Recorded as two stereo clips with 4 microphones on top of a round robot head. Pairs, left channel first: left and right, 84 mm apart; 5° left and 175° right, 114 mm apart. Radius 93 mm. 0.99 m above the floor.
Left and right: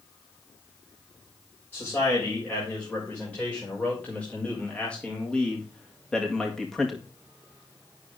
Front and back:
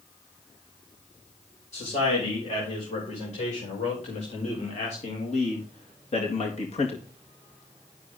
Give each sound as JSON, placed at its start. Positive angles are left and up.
{"t": 1.7, "sound": "a man speaking", "azimuth_deg": 20, "distance_m": 6.5}